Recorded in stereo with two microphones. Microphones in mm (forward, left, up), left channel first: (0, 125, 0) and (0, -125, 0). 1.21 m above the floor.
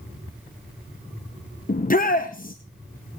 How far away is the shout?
About 0.9 m.